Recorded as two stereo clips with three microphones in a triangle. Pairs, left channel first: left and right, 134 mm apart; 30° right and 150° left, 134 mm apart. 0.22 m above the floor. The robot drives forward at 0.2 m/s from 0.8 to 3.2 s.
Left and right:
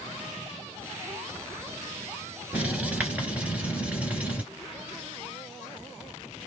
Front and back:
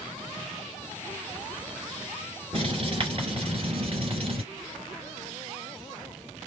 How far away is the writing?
About 3 m.